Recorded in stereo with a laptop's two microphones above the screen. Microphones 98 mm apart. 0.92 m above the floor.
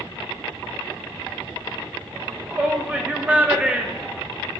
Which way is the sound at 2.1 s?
15° right (ahead or behind).